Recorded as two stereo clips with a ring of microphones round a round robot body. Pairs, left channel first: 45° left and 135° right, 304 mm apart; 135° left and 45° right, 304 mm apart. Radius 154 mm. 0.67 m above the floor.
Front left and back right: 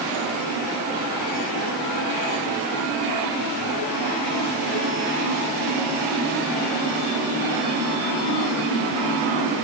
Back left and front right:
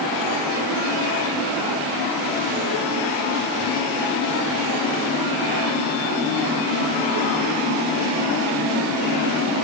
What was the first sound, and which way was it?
Only background noise.